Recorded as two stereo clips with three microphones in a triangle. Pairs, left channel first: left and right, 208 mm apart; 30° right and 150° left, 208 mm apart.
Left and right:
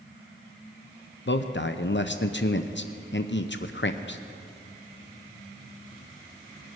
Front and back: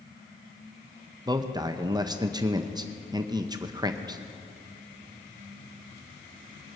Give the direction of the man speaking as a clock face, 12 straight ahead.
9 o'clock.